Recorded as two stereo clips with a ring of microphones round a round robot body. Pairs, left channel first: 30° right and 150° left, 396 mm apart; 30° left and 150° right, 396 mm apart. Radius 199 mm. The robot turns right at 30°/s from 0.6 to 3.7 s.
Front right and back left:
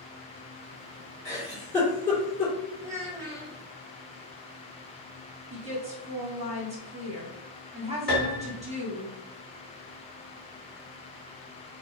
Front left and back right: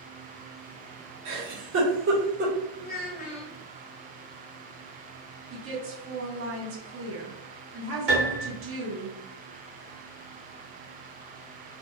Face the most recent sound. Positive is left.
turn(degrees=-120)